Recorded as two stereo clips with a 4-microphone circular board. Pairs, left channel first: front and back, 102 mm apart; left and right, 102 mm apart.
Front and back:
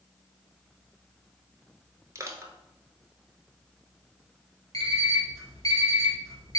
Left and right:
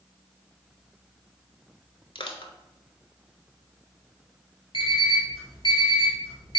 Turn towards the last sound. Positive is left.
turn(degrees=50)